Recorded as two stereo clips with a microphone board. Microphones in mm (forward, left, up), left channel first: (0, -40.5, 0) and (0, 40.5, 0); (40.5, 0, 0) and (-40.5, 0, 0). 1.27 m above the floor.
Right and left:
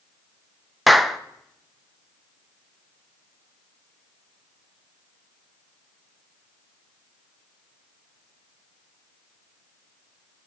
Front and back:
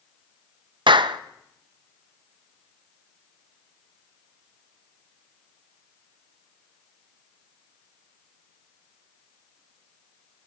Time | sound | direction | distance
0.9 | a clap | straight behind | 0.5 m